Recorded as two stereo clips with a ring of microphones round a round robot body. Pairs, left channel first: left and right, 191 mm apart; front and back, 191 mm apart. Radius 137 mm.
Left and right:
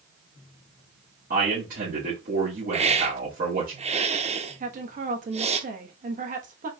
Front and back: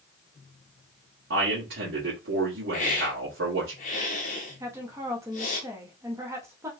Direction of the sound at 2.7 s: 40° right.